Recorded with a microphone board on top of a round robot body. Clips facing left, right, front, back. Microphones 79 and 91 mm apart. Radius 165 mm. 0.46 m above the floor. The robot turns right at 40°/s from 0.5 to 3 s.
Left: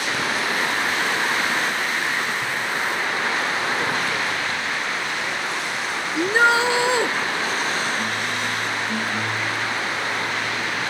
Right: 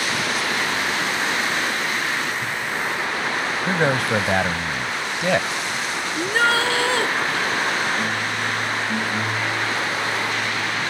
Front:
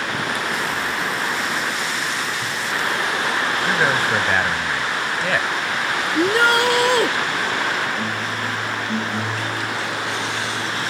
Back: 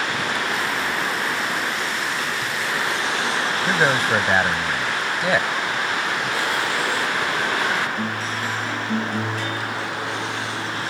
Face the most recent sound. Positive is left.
turn(degrees=20)